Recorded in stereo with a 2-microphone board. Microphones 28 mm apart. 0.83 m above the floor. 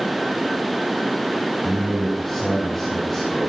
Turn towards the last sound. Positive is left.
turn(degrees=10)  # may be behind; listen again after turning